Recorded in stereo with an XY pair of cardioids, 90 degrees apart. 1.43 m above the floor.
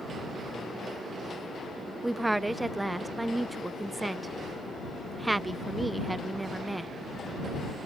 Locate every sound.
2.0 s a woman speaking: 15° right